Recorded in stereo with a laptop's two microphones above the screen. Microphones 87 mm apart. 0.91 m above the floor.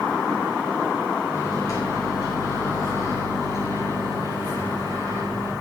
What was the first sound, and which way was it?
A microwave, 40° left (ahead or behind).